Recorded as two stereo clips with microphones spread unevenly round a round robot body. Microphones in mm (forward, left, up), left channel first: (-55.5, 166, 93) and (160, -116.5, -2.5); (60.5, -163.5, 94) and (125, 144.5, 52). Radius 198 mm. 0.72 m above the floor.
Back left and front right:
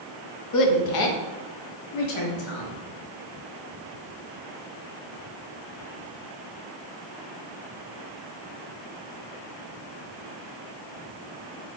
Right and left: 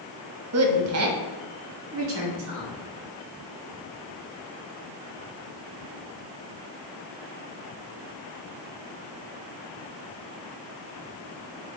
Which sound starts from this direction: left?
A woman speaking, at 0.5 s.